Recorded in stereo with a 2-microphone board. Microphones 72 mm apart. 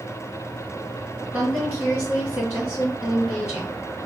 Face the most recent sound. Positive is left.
turn(degrees=-25)  # may be behind; listen again after turning